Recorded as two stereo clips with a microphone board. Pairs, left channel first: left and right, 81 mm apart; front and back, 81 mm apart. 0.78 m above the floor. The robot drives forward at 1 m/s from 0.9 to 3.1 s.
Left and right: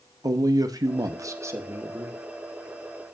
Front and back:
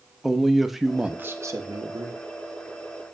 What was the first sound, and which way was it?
A man speaking, 95° right.